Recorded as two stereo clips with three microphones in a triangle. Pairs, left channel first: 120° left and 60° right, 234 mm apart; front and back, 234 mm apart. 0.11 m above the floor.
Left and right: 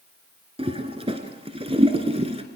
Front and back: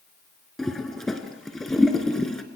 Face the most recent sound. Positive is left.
turn(degrees=-90)